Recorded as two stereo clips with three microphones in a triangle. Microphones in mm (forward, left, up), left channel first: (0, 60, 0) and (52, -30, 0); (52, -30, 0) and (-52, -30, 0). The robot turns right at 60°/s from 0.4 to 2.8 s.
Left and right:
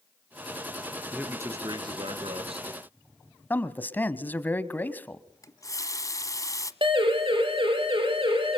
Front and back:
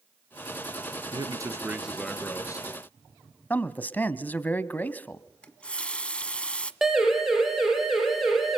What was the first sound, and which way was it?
A man speaking, 140° right.